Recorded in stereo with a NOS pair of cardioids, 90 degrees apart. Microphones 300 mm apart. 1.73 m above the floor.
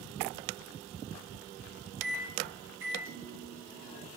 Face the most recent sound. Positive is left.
turn(degrees=-40)